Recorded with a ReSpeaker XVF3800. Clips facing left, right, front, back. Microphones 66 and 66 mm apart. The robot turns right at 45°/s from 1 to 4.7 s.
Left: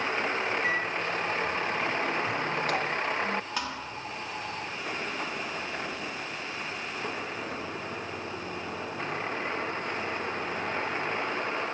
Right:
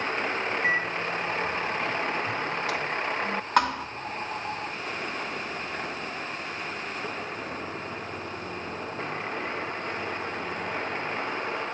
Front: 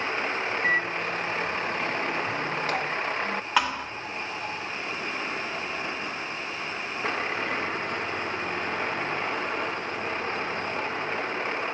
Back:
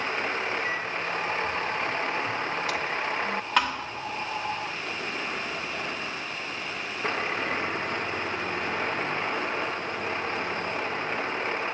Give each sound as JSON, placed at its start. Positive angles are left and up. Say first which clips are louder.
{"t": 0.6, "sound": "a microwave", "louder": "right 2 dB, front 4 dB", "azimuth_deg": -30, "distance_m": 1.4}
{"t": 3.6, "sound": "a thud", "louder": "right 11 dB, front 1 dB", "azimuth_deg": -85, "distance_m": 1.3}